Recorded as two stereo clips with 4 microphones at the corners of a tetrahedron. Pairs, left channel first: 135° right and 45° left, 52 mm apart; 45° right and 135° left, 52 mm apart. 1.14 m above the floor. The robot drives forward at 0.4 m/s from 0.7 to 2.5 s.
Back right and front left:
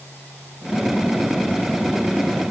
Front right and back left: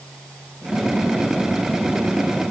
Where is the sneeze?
I don't hear a sneeze.